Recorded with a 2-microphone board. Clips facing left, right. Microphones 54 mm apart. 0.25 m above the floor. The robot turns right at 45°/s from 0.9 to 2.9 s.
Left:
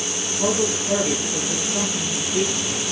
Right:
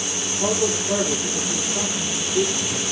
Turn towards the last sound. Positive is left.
turn(degrees=120)